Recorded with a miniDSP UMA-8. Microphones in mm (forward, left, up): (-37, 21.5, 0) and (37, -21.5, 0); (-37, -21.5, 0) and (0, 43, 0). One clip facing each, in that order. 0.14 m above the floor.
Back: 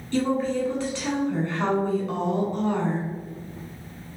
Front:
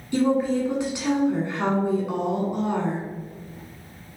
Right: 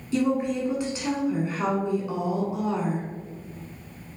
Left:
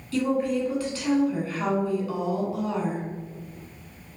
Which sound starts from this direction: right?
A woman speaking, at 0.1 s.